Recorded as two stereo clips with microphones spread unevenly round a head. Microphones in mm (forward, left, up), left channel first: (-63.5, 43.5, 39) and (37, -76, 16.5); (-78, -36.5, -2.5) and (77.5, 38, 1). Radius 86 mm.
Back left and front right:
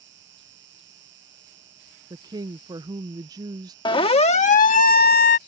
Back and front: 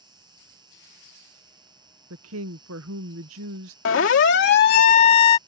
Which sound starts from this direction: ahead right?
An insect, at 0.0 s.